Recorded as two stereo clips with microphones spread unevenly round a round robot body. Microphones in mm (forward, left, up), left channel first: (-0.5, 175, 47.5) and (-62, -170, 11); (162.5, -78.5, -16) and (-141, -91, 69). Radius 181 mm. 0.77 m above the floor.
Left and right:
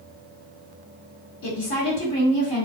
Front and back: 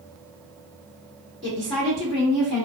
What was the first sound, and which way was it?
A woman speaking, 80° left.